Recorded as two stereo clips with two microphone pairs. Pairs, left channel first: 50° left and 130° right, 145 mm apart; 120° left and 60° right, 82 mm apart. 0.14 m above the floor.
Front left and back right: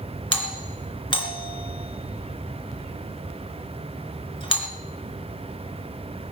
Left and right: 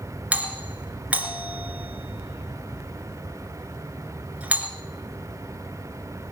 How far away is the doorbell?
About 2.5 m.